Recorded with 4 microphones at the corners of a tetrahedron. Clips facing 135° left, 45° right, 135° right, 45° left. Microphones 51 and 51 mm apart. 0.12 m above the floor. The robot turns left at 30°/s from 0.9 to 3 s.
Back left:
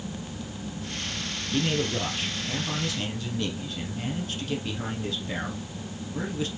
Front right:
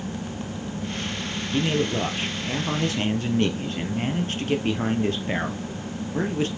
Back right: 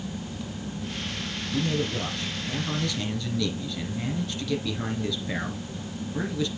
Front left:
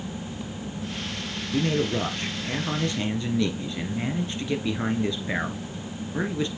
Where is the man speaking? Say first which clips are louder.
Front right 3 dB, front left 3 dB; 35° left, 1.8 m; by 6.5 s 10° right, 1.8 m.